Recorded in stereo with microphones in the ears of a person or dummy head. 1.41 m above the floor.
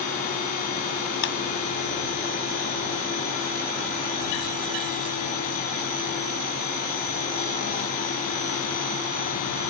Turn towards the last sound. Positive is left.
turn(degrees=70)  # may be behind; listen again after turning